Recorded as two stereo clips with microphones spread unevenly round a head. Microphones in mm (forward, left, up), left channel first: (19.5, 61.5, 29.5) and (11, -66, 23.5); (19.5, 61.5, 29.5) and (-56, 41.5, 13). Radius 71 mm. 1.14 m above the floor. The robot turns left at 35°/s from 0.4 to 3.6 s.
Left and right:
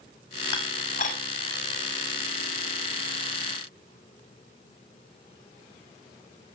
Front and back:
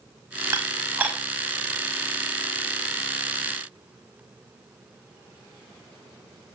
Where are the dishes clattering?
140° left, 6 m; by 1.2 s 115° left, 6 m.